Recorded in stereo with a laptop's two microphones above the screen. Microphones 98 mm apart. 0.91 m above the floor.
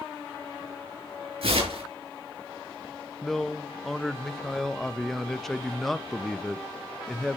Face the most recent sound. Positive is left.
turn(degrees=0)  # may be behind; listen again after turning